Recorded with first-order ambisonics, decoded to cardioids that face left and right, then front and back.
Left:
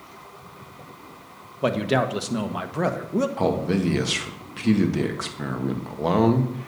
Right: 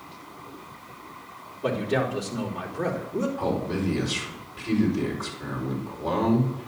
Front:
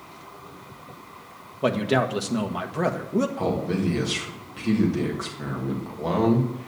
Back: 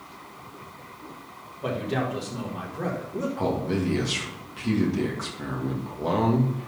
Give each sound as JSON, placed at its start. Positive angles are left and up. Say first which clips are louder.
{"t": 1.6, "sound": "a man speaking", "louder": "left 3 dB, front 6 dB", "azimuth_deg": 50, "distance_m": 1.2}
{"t": 3.4, "sound": "a man speaking", "louder": "left 4 dB, front 1 dB", "azimuth_deg": 90, "distance_m": 1.8}